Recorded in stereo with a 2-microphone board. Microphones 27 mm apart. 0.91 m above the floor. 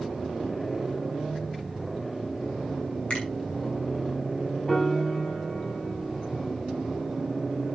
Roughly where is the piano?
Left.